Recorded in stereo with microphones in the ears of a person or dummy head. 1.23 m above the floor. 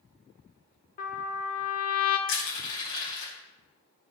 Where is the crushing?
70° left (ahead or behind), 4 m.